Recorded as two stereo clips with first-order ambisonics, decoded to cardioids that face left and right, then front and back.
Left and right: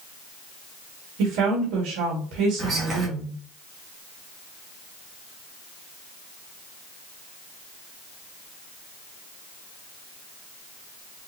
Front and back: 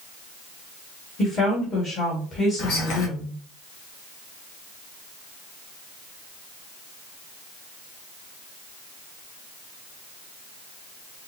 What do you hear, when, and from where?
1.2 s a woman speaking: 60° right, 2.0 m
2.6 s whispering: 30° right, 1.7 m